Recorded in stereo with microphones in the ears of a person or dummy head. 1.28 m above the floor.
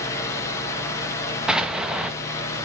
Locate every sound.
0.0 s a fan: 15° left (ahead or behind), 1.4 m
1.5 s an explosion: centre (ahead or behind), 1.0 m